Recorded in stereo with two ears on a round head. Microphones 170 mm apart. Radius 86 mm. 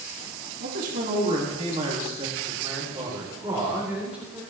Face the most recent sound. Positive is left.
turn(degrees=-5)  # may be behind; listen again after turning